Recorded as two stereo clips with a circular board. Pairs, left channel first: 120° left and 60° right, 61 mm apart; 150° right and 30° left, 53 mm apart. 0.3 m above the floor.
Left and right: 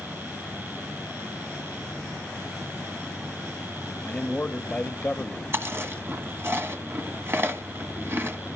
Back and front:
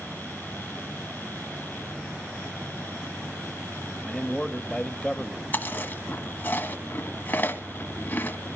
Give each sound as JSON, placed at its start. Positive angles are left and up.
{"t": 4.0, "sound": "a man speaking", "azimuth_deg": 145, "distance_m": 1.0}
{"t": 5.5, "sound": "chewing", "azimuth_deg": -100, "distance_m": 1.7}